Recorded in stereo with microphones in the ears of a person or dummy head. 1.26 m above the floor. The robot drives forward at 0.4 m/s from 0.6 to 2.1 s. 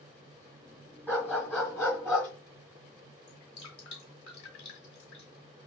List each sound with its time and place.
1.1 s a dog barking: 10° left (ahead or behind), 3 m
3.3 s dripping: 55° left (ahead or behind), 1.8 m